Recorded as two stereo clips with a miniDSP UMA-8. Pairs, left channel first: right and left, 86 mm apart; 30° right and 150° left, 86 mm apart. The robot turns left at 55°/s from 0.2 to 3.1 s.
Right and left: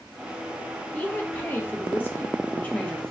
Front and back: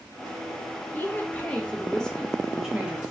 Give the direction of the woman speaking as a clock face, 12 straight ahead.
1 o'clock.